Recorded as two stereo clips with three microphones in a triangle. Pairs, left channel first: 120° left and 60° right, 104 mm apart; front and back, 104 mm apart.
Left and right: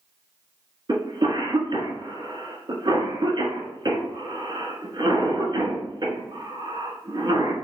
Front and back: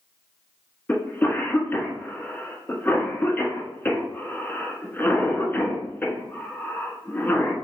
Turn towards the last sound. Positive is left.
turn(degrees=-70)